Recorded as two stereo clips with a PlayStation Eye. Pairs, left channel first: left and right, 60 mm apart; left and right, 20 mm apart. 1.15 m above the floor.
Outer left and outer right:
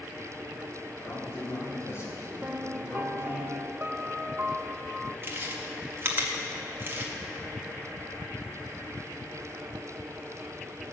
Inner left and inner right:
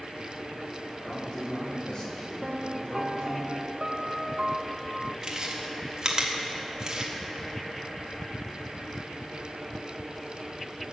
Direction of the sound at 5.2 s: 35° right (ahead or behind).